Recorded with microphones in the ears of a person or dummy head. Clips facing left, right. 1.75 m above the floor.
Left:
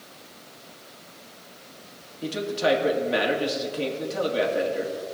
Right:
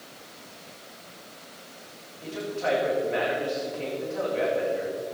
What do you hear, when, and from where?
2.2 s a man speaking: 50° left (ahead or behind), 2.5 m